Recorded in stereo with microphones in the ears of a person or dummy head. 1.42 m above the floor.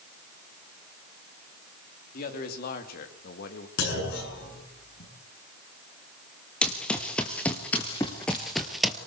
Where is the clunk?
55° left (ahead or behind), 8 m.